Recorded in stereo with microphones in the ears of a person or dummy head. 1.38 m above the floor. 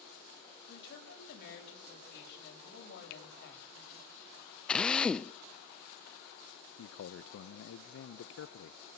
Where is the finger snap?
70° left (ahead or behind), 1.0 m.